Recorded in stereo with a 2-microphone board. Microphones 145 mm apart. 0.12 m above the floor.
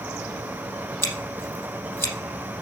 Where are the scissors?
15° left (ahead or behind), 4 m.